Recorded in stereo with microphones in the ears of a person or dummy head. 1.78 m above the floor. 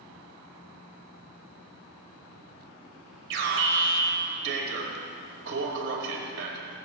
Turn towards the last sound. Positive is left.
turn(degrees=-60)  # may be behind; listen again after turning